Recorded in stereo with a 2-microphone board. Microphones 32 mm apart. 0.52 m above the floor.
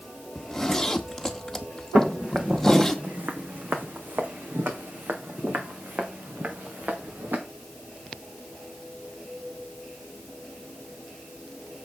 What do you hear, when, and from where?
0.3 s a zipper: 10° left (ahead or behind), 1.4 m
1.9 s footsteps: 45° right (ahead or behind), 1.9 m; by 7.4 s 60° right (ahead or behind), 3.5 m